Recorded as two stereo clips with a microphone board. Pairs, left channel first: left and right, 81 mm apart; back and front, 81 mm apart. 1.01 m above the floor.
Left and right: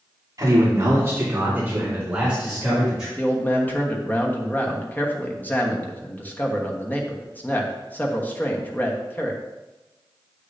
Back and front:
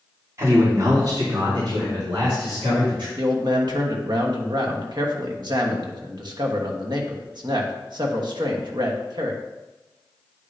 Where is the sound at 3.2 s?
20° left, 1.2 m.